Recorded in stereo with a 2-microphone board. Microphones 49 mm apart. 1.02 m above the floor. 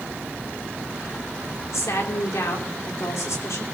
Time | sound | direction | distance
1.7 | a woman speaking | 85° left | 2.5 m